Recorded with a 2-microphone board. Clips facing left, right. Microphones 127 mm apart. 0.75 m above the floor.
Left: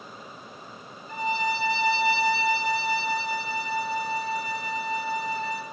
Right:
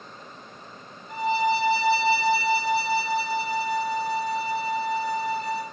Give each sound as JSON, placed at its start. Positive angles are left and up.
{"t": 1.1, "sound": "a violin", "side_deg": -15, "distance_m": 0.7}